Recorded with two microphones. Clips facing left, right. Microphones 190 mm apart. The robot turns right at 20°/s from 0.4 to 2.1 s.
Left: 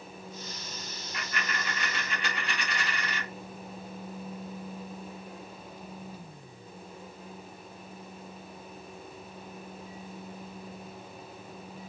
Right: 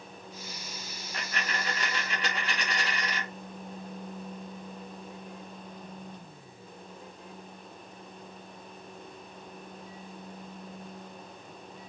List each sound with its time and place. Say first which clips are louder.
1.1 s a dropped coin: right 1 dB; 65° right (ahead or behind), 1.3 m; by 3.3 s 75° right (ahead or behind), 1.3 m